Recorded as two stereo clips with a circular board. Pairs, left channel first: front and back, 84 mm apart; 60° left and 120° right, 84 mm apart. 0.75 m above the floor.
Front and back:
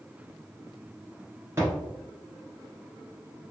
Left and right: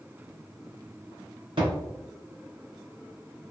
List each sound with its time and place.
1.6 s a thud: 120° right, 1.7 m